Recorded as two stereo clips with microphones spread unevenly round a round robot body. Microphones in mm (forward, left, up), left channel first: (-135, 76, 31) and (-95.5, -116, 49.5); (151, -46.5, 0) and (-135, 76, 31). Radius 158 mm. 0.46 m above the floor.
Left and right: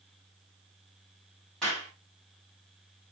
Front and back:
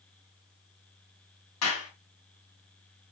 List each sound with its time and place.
1.6 s a clap: 15° left, 3.5 m